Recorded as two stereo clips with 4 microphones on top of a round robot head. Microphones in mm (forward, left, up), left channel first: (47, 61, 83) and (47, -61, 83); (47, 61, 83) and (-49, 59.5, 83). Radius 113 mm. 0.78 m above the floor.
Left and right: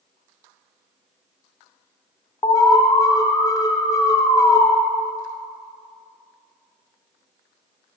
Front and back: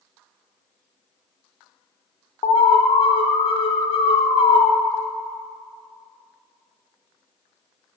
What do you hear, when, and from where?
2.4 s an alarm: 25° left, 0.6 m